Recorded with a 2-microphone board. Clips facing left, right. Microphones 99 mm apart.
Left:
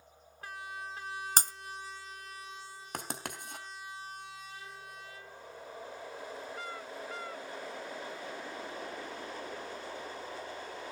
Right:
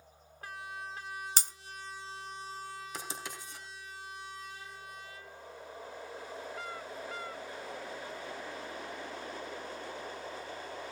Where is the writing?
60° left (ahead or behind), 3.5 m.